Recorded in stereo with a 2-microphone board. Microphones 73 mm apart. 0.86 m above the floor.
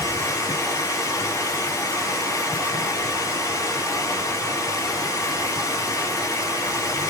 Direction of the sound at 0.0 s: 50° left (ahead or behind).